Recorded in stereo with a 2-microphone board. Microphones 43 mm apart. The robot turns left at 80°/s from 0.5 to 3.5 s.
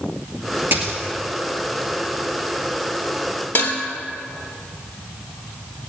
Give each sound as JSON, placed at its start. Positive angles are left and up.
{"t": 0.7, "sound": "a dropped coin", "side_deg": -60, "distance_m": 2.0}
{"t": 3.5, "sound": "dishes clattering", "side_deg": 60, "distance_m": 2.5}